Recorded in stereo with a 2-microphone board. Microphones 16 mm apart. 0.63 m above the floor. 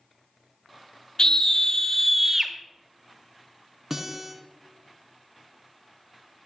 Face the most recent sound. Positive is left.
turn(degrees=-10)  # may be behind; listen again after turning